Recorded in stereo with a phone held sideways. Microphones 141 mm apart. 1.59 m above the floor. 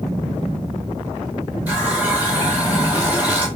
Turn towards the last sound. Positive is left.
turn(degrees=-10)  # may be behind; listen again after turning